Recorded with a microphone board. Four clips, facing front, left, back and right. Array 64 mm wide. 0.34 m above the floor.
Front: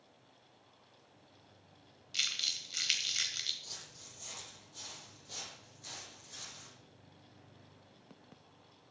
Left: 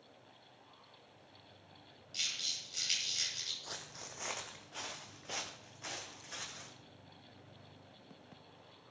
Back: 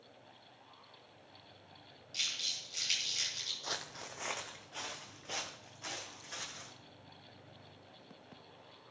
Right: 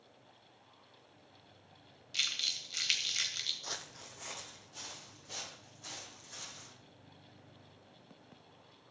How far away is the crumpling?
About 2 m.